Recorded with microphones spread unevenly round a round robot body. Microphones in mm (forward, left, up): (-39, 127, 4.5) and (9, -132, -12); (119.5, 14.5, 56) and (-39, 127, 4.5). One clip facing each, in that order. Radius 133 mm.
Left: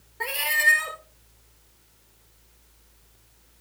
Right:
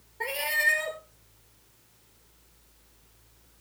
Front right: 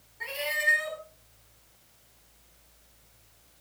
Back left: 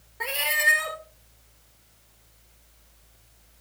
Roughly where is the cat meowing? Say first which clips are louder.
Right 1 dB, back left 2 dB; behind.